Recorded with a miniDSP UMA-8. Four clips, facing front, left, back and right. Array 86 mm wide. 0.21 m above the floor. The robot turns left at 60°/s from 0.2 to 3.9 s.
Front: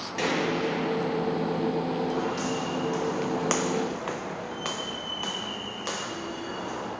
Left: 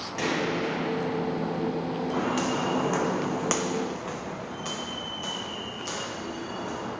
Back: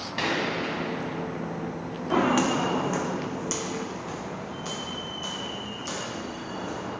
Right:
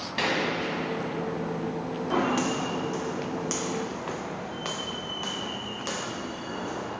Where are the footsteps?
155° right, 0.8 m; by 6.9 s 40° right, 2.5 m.